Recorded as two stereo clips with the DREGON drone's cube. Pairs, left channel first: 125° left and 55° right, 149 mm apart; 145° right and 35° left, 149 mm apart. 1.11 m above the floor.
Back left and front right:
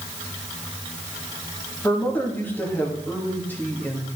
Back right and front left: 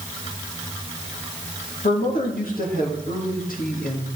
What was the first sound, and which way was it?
A man speaking, 160° right.